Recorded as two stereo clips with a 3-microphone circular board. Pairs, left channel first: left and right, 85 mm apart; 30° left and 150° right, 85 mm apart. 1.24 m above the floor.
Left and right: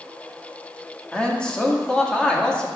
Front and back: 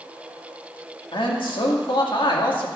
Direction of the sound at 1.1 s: 10° left.